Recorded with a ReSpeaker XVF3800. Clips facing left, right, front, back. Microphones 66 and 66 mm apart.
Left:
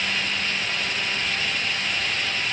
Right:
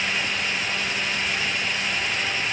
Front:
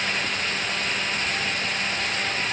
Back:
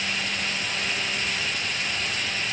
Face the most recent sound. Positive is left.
No sound to turn to.